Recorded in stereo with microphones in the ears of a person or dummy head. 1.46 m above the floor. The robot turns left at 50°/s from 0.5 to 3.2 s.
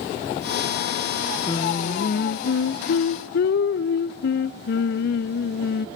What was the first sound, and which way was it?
Singing, 155° left.